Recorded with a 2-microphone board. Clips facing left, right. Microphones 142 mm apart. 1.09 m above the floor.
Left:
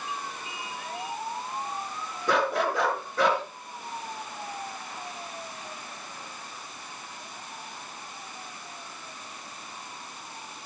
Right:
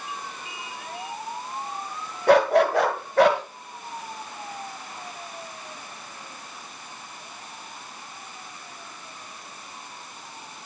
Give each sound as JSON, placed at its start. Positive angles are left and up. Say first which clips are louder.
{"t": 2.3, "sound": "a dog barking", "louder": "right 8 dB", "side_deg": -70, "distance_m": 1.8}